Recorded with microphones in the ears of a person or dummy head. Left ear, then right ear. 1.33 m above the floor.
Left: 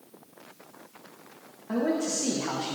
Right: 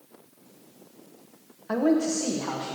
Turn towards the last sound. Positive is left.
turn(degrees=10)  # may be behind; listen again after turning